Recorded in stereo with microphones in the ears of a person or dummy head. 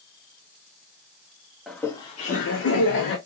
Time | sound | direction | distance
1.7 | laughter | centre (ahead or behind) | 0.7 m